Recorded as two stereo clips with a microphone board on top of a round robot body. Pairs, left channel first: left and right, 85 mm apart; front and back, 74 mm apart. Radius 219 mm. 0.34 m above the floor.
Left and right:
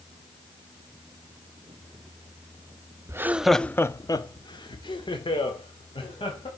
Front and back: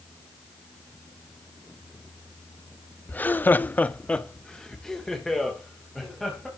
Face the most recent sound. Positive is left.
turn(degrees=90)